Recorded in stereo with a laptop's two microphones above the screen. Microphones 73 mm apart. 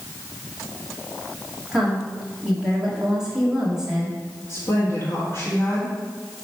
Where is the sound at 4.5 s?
35° left (ahead or behind), 1.5 m.